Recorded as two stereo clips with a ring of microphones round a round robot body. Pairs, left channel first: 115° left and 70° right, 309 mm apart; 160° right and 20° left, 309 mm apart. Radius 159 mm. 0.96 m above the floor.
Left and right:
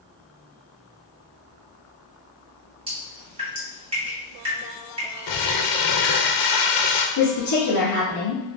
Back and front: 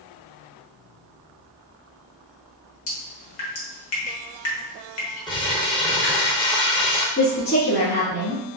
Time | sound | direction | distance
2.9 | dripping | 140° right | 1.3 m
5.3 | crumpling | 125° left | 0.7 m
7.2 | a woman speaking | 145° left | 1.7 m